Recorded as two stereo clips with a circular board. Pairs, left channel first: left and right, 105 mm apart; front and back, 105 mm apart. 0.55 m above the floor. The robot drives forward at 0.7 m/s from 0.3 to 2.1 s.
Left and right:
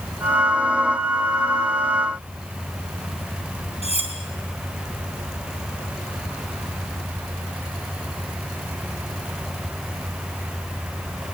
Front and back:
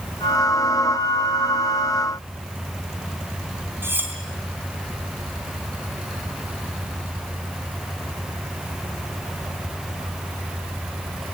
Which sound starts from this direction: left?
Cutlery clinking, at 3.8 s.